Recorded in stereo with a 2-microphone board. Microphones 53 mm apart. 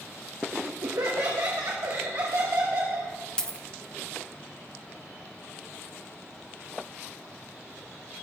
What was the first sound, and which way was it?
Laughter, 75° right (ahead or behind).